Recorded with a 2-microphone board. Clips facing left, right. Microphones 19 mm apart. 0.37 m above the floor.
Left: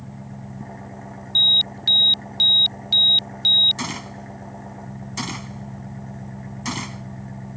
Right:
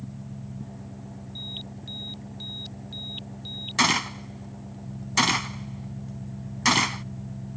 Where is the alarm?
60° left (ahead or behind).